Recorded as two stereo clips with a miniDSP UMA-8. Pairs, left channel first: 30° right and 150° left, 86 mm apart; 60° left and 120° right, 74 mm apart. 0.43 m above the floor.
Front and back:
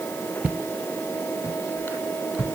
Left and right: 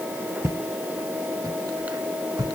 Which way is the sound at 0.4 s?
145° right.